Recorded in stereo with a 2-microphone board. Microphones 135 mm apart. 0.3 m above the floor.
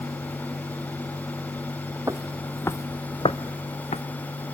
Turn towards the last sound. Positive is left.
turn(degrees=55)  # may be behind; listen again after turning